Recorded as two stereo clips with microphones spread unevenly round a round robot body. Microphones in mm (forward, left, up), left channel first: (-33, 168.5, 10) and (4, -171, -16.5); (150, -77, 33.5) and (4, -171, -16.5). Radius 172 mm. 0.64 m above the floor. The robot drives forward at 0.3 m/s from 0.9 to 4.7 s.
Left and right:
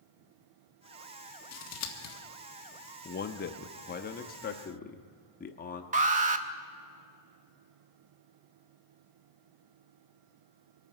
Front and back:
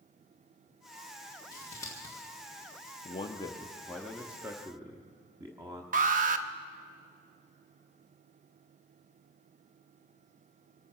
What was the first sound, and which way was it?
Scissors, 115° left.